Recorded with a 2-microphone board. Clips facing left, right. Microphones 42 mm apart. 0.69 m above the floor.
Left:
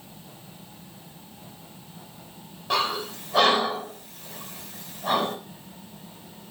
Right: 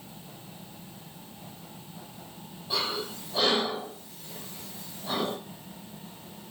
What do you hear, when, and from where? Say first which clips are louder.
2.7 s breathing: left 6 dB; 75° left (ahead or behind), 5.5 m